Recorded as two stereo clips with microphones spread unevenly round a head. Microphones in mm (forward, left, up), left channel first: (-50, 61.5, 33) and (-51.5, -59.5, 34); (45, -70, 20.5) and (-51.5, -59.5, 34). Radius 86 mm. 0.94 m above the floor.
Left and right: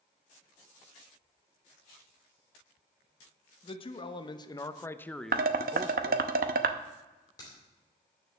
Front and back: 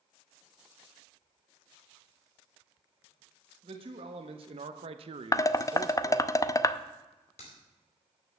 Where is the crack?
20° left, 4 m.